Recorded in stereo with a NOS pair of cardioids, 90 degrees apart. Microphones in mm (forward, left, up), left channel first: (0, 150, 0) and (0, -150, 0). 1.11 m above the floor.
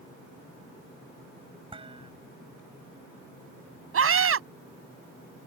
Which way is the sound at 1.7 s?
20° right.